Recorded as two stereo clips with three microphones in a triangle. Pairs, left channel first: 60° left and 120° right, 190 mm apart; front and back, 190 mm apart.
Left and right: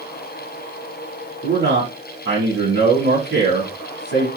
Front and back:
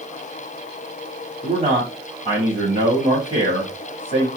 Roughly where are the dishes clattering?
No dishes clattering in this recording.